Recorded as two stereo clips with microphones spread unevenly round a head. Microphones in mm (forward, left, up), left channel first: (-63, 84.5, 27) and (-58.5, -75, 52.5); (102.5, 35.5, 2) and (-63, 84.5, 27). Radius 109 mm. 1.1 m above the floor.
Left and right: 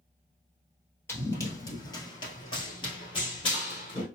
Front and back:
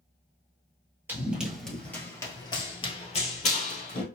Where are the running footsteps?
165° left, 1.1 m; by 4.0 s 20° left, 1.6 m.